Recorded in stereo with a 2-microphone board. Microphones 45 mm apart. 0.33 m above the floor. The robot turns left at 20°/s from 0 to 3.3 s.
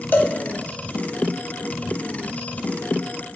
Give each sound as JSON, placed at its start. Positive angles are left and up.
{"t": 0.1, "sound": "a cowbell", "side_deg": 50, "distance_m": 0.8}